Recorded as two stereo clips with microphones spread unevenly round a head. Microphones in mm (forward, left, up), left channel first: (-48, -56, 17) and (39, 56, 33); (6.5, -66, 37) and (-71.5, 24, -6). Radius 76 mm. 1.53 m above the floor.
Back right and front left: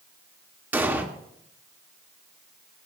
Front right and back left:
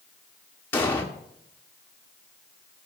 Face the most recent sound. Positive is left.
turn(degrees=-15)